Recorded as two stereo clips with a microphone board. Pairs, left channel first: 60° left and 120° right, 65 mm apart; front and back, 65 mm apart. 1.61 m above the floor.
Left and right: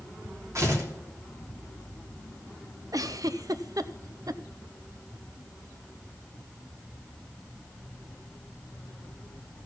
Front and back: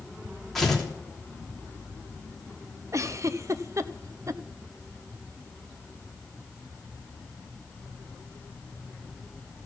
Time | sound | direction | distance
0.6 | tearing paper | 85° right | 3 m
2.9 | a giggle | 140° right | 0.6 m